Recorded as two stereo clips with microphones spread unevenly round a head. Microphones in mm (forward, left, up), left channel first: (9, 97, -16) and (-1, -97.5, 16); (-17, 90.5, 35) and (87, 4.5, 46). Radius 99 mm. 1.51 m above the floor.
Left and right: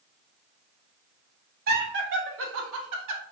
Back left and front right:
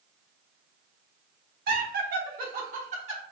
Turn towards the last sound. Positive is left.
turn(degrees=-95)